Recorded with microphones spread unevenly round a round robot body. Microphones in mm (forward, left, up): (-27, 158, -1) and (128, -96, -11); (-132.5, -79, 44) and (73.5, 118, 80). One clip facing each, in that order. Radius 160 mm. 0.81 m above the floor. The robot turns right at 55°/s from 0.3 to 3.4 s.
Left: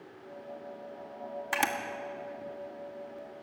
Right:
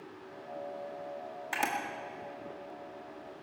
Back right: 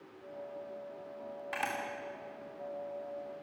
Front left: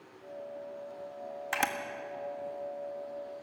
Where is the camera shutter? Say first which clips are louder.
Left 3 dB, front left 5 dB; 55° left, 1.6 m; by 1.7 s 65° left, 1.6 m.